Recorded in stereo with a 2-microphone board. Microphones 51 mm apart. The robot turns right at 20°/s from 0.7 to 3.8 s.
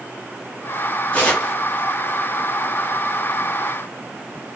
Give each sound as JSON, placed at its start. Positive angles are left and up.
{"t": 1.1, "sound": "tearing paper", "side_deg": 25, "distance_m": 3.0}